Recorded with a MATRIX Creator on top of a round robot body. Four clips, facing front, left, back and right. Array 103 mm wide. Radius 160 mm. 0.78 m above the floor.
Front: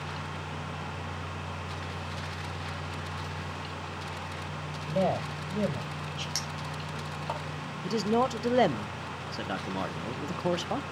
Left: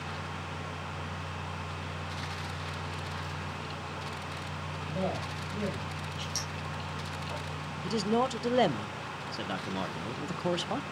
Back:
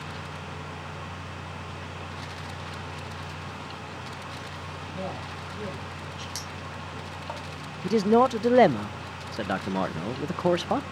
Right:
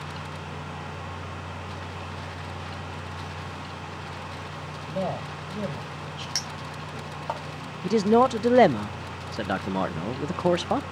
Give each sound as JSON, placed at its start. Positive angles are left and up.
{"t": 4.8, "sound": "a man speaking", "azimuth_deg": -20, "distance_m": 5.0}
{"t": 6.3, "sound": "a clink", "azimuth_deg": -80, "distance_m": 2.0}
{"t": 7.8, "sound": "a man speaking", "azimuth_deg": -125, "distance_m": 0.6}